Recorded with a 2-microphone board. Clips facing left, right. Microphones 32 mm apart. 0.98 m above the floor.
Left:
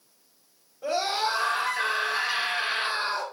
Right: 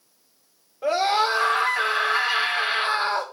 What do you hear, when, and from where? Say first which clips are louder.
0.8 s a scream: right 6 dB; 35° right (ahead or behind), 3.5 m